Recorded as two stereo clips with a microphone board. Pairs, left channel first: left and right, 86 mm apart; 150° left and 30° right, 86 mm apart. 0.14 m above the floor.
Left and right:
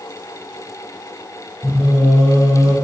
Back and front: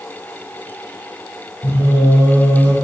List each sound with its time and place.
1.6 s singing: 170° right, 1.3 m